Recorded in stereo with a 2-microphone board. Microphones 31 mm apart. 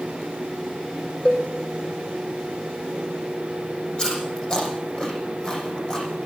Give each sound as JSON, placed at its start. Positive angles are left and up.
{"t": 1.2, "sound": "a cowbell", "side_deg": 20, "distance_m": 9.5}
{"t": 4.0, "sound": "chewing", "side_deg": 30, "distance_m": 7.5}